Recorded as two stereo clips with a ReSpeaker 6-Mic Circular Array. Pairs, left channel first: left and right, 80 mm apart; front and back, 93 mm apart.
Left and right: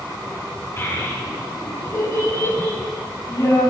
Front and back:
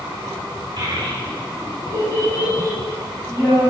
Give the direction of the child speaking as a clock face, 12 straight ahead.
7 o'clock.